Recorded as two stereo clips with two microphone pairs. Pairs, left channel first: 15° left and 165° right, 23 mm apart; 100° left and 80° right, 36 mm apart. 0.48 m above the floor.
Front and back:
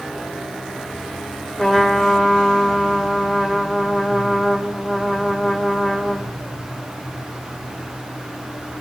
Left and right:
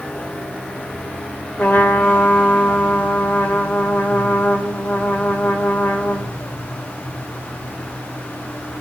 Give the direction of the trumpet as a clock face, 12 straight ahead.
9 o'clock.